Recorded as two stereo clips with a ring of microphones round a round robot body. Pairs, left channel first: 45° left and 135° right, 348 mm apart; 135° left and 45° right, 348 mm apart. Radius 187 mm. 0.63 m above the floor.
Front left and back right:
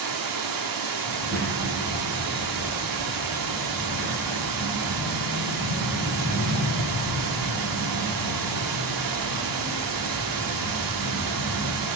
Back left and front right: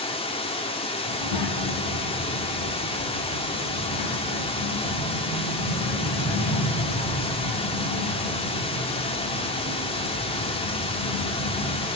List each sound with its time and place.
0.0 s running water: 150° right, 1.5 m
1.1 s a child speaking: 160° left, 3 m